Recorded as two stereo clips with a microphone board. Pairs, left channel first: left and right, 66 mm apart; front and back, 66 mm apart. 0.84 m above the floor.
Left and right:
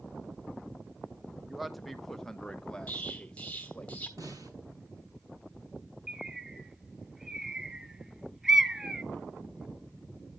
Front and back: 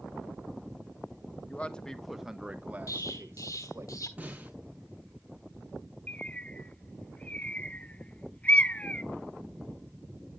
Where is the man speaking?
5° right, 0.9 m; by 3.9 s 160° left, 1.4 m.